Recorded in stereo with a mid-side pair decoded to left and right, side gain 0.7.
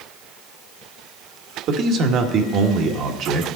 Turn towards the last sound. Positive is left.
turn(degrees=-50)